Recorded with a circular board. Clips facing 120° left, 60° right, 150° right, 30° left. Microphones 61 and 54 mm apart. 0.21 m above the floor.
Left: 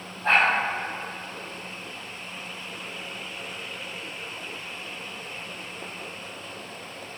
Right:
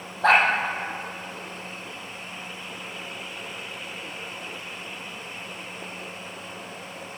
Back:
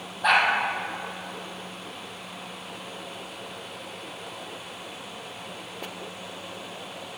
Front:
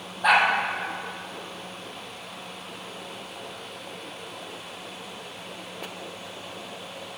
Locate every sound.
0.2 s a dog barking: 55° right, 3 m